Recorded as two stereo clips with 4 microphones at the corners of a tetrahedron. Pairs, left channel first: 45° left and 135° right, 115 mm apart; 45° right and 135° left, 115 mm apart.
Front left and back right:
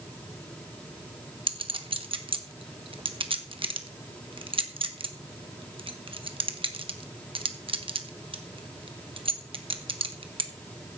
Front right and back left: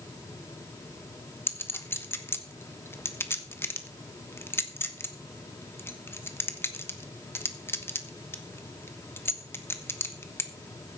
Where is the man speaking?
No man speaking in this recording.